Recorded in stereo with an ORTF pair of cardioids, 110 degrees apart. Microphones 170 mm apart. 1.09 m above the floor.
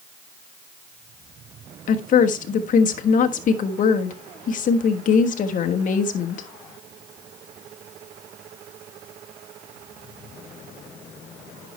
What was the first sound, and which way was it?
A woman speaking, 50° left.